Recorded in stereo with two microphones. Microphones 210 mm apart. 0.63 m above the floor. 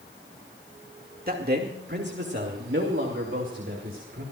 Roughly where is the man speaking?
Right.